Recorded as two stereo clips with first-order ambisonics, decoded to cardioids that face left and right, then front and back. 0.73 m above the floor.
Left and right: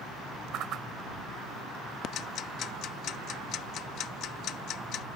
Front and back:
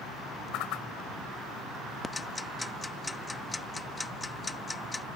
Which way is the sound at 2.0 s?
75° left.